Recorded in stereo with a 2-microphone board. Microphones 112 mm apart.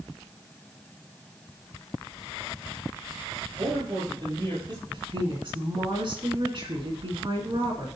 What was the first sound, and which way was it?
A man speaking, 45° right (ahead or behind).